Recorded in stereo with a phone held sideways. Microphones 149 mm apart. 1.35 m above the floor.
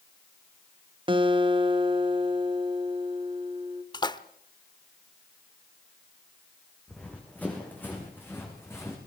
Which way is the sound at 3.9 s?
25° left (ahead or behind).